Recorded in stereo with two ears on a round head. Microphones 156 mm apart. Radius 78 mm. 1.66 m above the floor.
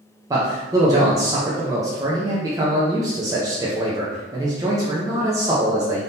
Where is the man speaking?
20° right (ahead or behind), 0.5 m.